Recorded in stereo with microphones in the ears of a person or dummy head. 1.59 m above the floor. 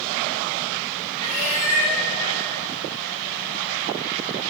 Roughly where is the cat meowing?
Right.